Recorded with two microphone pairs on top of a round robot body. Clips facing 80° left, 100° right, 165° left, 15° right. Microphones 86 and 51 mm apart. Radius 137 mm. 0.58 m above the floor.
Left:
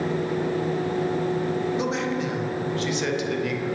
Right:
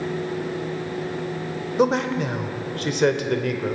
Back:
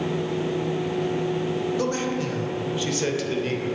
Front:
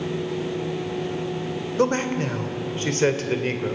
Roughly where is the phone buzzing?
I don't hear a phone buzzing.